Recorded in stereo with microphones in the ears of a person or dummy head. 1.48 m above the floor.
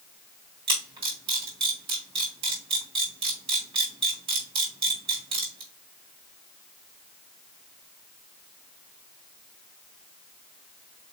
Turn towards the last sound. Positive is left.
turn(degrees=-30)  # may be behind; listen again after turning